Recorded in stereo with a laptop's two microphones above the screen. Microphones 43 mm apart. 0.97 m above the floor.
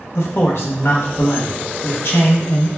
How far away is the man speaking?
About 0.8 m.